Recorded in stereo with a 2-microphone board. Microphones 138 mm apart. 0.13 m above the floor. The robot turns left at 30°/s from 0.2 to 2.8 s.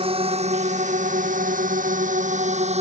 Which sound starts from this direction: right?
A drone, at 0.0 s.